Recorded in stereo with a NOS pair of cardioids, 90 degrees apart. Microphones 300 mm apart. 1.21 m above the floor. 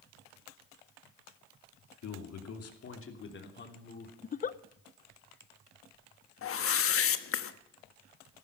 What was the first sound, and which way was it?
A man speaking, 65° left.